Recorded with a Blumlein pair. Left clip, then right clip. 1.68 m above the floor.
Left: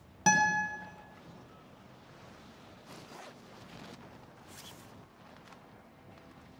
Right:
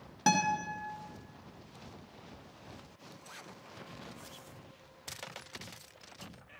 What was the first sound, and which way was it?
A guitar, straight ahead.